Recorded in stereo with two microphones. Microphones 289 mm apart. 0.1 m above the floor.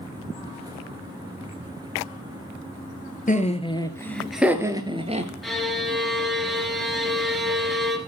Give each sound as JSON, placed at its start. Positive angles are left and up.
{"t": 3.3, "sound": "laughter", "side_deg": 25, "distance_m": 1.6}
{"t": 5.4, "sound": "a violin", "side_deg": 0, "distance_m": 1.9}